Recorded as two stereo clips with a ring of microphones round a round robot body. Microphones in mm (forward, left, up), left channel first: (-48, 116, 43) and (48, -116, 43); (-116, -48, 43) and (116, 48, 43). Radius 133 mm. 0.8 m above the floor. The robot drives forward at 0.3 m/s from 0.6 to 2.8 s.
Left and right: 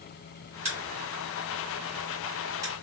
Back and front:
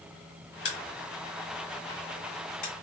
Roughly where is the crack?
Behind right.